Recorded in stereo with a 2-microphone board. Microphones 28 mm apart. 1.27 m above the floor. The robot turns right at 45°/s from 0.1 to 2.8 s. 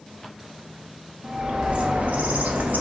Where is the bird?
155° right, 0.5 m; by 2.8 s 80° right, 0.5 m.